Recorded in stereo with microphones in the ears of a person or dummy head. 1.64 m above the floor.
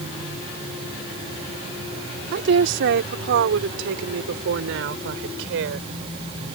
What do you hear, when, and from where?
2.3 s a woman speaking: 70° right (ahead or behind); by 5.8 s 85° right